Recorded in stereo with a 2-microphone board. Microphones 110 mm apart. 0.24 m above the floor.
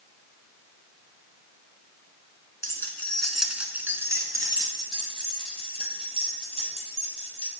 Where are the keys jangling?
25° left (ahead or behind), 1.7 m; by 7.5 s 65° right (ahead or behind), 5 m.